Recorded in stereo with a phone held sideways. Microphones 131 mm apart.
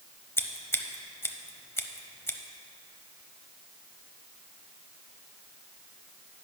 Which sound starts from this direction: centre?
Scissors, at 0.4 s.